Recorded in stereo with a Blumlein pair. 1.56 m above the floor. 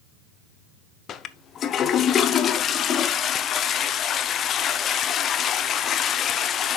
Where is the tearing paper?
No tearing paper in this recording.